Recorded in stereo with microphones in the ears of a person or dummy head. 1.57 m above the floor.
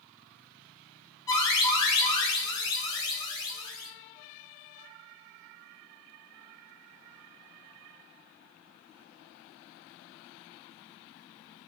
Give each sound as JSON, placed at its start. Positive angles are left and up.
{"t": 1.3, "sound": "an alarm", "side_deg": 15, "distance_m": 0.5}